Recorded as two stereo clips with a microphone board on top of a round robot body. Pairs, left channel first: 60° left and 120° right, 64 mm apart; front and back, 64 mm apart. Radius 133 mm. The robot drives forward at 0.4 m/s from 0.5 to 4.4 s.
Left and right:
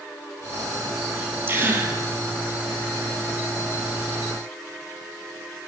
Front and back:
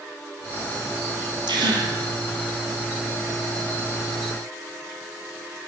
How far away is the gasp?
About 5.5 m.